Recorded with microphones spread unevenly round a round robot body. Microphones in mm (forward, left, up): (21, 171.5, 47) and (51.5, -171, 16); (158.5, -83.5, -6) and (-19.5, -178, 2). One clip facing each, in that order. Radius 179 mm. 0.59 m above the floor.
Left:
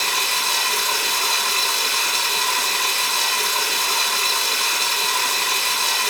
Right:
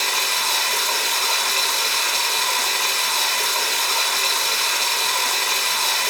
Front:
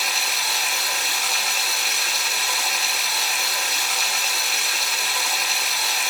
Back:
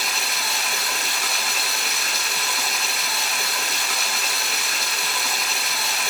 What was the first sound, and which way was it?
Running water, 165° left.